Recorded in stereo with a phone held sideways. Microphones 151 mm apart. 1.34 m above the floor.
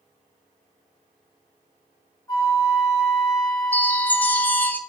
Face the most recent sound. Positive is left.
turn(degrees=10)  # may be behind; listen again after turning